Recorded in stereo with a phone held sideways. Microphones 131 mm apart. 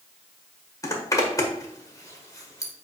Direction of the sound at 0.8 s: 25° left (ahead or behind).